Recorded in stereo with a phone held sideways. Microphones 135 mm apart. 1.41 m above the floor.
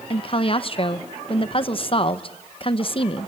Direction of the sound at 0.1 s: 40° left (ahead or behind).